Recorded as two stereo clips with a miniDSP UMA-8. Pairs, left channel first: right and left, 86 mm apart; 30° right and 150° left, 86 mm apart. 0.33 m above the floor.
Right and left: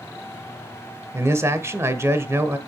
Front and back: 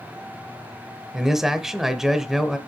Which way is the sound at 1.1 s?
70° left.